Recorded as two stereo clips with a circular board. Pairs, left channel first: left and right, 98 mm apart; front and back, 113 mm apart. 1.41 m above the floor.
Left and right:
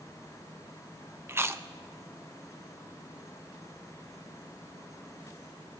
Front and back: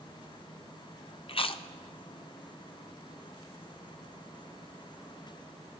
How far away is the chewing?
About 0.6 m.